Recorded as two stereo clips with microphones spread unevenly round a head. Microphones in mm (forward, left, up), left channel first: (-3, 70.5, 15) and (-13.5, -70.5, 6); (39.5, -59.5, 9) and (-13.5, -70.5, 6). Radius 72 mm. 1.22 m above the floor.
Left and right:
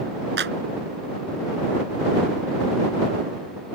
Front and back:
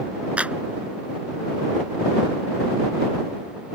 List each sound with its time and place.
0.4 s a clap: 100° right